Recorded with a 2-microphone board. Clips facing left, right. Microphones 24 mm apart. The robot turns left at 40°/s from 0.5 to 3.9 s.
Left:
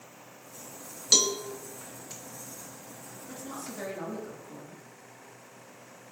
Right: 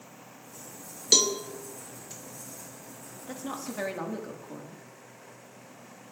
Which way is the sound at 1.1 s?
5° right (ahead or behind).